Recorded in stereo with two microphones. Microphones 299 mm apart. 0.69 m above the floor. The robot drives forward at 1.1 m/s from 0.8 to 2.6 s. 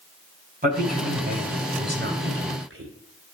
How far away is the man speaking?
About 4.5 m.